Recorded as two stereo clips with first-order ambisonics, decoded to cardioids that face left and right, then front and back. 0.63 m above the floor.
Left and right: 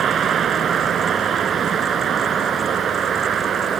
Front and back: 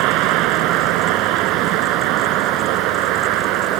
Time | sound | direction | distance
0.0 | a vehicle | 150° right | ?